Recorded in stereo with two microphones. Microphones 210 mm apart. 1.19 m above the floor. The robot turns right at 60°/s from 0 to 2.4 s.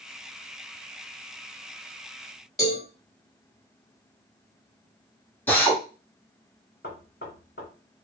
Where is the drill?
10° left (ahead or behind), 1.3 m.